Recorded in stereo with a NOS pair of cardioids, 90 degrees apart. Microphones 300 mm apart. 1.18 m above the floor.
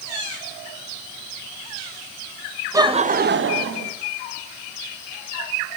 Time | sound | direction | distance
2.7 | laughter | 10° right | 1.2 m